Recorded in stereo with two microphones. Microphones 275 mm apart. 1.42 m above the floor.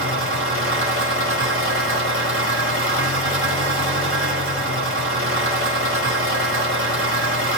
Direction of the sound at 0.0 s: 55° right (ahead or behind).